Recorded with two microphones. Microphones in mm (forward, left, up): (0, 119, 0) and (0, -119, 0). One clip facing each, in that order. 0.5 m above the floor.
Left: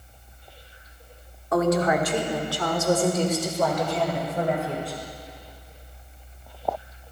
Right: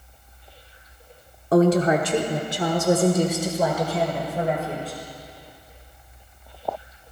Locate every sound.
1.5 s a woman speaking: 35° right (ahead or behind), 1.1 m; by 5.0 s centre (ahead or behind), 2.5 m